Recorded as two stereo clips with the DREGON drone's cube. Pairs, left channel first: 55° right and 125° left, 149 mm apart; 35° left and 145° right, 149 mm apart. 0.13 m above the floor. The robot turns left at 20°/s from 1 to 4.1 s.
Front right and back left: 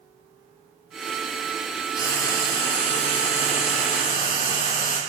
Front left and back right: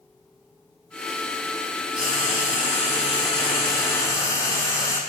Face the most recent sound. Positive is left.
turn(degrees=-30)